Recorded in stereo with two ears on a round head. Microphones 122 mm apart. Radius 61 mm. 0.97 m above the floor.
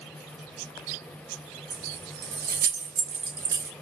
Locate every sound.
1.7 s keys jangling: 80° right, 1.3 m; by 3.7 s 20° right (ahead or behind), 1.0 m